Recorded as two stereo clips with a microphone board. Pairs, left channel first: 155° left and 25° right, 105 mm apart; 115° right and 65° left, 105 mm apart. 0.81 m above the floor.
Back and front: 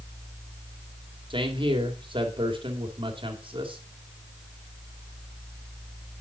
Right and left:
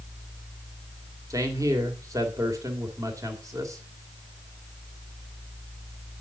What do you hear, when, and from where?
1.3 s a man speaking: 10° left, 2 m